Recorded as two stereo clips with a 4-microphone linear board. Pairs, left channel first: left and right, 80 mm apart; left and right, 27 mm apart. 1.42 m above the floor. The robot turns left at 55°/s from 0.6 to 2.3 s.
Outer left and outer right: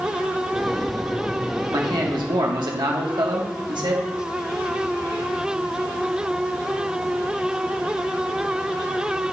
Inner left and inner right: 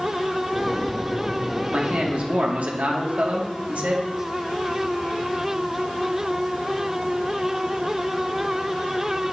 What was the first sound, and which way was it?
A man speaking, 65° right.